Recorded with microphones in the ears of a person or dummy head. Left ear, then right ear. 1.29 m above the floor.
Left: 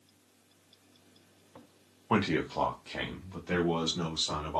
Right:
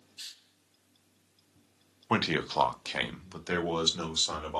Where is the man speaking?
15° right (ahead or behind), 0.5 m; by 4.6 s 85° right, 2 m.